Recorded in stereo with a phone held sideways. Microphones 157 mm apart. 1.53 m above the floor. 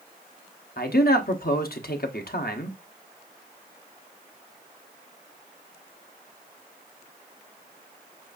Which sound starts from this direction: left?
A man speaking, at 0.8 s.